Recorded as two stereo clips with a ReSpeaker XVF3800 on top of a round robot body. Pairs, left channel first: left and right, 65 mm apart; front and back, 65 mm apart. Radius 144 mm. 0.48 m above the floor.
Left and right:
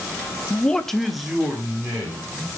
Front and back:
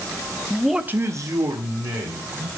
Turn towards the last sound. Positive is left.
turn(degrees=-170)